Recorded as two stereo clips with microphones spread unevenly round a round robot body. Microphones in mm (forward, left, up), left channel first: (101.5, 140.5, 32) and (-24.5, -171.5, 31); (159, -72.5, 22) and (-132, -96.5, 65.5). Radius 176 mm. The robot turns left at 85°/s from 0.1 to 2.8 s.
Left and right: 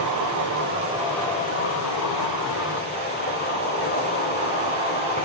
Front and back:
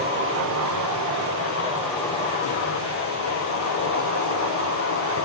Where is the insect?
120° right, 2 m; by 5.2 s 15° left, 2 m.